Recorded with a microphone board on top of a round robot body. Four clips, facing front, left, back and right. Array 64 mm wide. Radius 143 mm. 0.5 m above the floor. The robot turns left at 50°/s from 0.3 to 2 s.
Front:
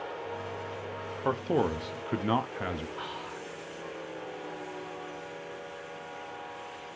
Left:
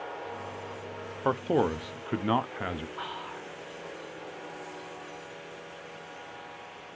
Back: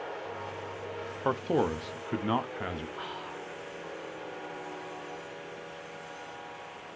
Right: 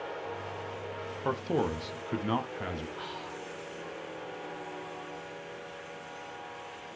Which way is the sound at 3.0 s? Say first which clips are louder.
Left 2 dB, even; 80° left.